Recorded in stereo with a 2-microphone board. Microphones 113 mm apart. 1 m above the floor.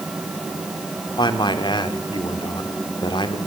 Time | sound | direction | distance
1.2 | a man speaking | 40° left (ahead or behind) | 2 m